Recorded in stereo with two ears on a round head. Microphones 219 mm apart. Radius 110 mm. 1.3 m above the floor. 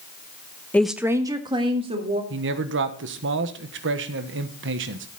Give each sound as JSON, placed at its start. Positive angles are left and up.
{"t": 0.7, "sound": "a woman speaking", "side_deg": 5, "distance_m": 0.7}
{"t": 2.3, "sound": "a man speaking", "side_deg": -50, "distance_m": 1.2}